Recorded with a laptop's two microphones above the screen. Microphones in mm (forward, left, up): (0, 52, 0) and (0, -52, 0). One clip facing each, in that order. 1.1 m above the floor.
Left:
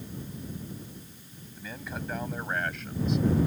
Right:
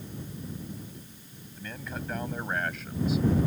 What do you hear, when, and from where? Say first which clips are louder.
1.6 s a man speaking: even; 5° left (ahead or behind); by 3.3 s 5° right (ahead or behind)